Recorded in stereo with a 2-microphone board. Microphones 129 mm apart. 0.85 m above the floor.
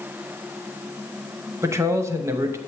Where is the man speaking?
20° right (ahead or behind), 0.7 m.